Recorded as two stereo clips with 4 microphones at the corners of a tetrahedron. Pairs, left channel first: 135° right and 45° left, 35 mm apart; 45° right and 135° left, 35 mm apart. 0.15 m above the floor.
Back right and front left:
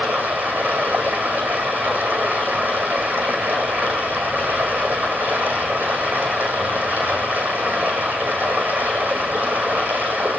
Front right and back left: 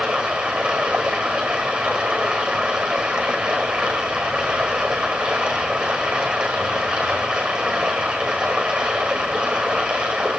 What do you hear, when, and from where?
0.0 s running water: 70° left, 1.7 m